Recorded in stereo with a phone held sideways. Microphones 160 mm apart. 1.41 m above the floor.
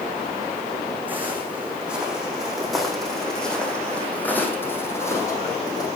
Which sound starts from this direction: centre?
Footsteps, at 1.1 s.